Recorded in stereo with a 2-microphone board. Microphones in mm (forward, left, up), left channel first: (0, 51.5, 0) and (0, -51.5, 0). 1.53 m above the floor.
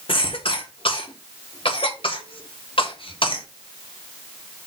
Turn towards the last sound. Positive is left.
turn(degrees=60)  # may be behind; listen again after turning